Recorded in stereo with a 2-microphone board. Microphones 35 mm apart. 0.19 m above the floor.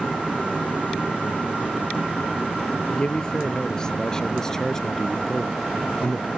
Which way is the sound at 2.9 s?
20° left (ahead or behind).